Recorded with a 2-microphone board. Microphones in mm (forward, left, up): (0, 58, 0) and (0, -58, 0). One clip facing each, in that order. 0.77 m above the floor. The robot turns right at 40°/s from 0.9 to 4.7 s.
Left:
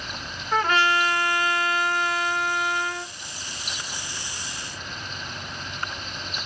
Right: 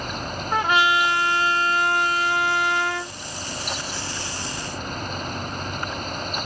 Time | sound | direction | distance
0.5 | a trumpet | 165° right | 0.8 m